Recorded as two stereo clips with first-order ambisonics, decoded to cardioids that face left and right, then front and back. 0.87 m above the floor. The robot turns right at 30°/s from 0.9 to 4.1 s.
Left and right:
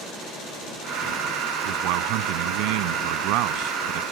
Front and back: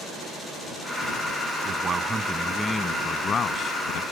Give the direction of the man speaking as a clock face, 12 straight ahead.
4 o'clock.